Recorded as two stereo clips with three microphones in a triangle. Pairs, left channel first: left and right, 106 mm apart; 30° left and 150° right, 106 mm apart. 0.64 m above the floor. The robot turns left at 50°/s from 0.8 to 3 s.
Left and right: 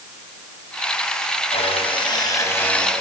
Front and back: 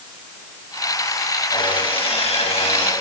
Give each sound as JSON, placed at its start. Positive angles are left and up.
{"t": 1.5, "sound": "sawing", "azimuth_deg": 75, "distance_m": 4.0}